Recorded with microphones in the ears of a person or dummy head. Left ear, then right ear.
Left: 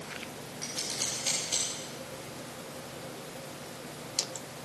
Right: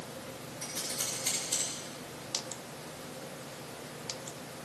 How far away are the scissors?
About 4 m.